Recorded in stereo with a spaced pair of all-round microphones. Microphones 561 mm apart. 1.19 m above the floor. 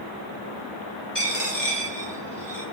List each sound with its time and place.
1.1 s a dropped coin: 45° left (ahead or behind), 1.7 m